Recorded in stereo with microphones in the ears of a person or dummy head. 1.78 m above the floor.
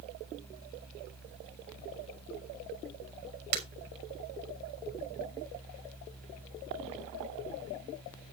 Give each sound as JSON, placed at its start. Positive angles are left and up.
{"t": 3.5, "sound": "breaking glass", "side_deg": -50, "distance_m": 4.0}